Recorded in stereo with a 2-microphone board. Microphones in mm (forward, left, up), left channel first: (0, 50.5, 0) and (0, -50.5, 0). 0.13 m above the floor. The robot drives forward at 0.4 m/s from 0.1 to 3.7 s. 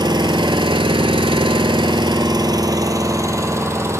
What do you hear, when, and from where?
0.0 s an engine running: 50° right (ahead or behind), 0.8 m; by 4.0 s 30° right (ahead or behind), 1.2 m